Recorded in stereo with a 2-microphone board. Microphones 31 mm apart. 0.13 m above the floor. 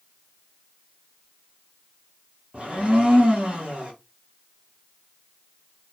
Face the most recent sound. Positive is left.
turn(degrees=-45)  # may be behind; listen again after turning